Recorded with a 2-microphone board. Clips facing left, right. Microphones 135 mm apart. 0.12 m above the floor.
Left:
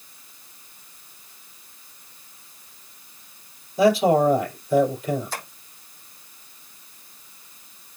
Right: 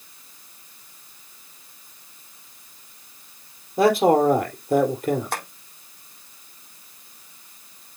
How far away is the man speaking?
About 4 m.